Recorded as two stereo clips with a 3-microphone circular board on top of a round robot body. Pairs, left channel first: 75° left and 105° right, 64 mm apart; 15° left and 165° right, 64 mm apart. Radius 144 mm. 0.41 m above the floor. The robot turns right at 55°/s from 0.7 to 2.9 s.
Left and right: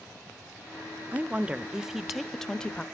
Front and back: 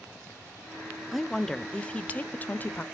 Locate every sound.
1.1 s a woman speaking: 75° right, 0.8 m; by 2.8 s 20° left, 0.8 m